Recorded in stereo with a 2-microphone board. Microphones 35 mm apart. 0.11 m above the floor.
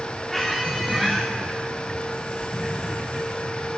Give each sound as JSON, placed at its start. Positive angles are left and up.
{"t": 0.3, "sound": "a squeak", "side_deg": 5, "distance_m": 1.2}